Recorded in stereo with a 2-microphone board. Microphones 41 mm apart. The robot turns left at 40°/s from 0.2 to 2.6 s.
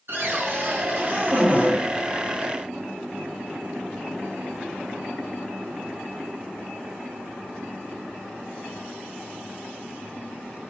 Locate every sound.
0.1 s a cupboard door: 80° right, 1.2 m; by 1.8 s 145° right, 1.2 m